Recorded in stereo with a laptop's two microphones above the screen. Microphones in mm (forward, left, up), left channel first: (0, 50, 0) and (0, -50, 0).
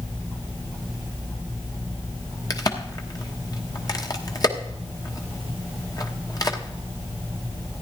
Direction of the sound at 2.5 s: 40° left (ahead or behind).